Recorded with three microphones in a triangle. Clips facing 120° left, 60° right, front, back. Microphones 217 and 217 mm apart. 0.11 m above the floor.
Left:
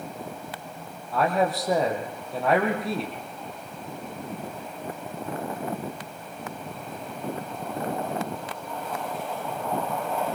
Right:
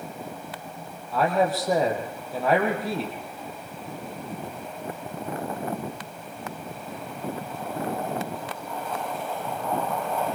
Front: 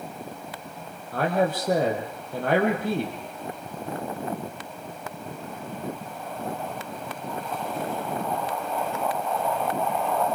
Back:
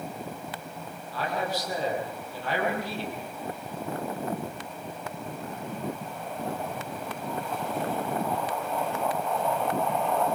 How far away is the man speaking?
About 4.5 m.